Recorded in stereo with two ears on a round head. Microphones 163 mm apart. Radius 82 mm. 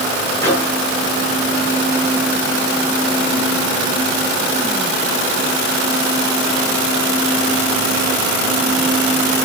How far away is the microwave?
About 7 m.